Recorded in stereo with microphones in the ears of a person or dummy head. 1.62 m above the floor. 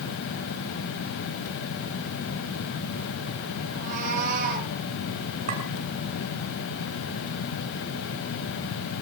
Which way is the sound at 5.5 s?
45° right (ahead or behind).